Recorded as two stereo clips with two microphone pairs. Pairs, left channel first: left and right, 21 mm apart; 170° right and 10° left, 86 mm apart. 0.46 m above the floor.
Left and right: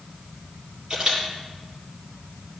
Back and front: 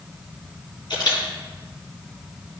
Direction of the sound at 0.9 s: 135° right.